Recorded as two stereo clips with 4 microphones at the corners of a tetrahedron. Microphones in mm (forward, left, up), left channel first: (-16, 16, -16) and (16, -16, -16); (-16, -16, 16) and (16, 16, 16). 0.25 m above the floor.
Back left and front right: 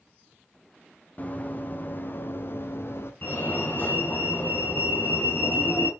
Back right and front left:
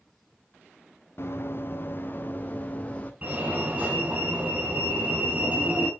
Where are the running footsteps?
170° right, 2.5 m; by 3.1 s 160° left, 2.5 m.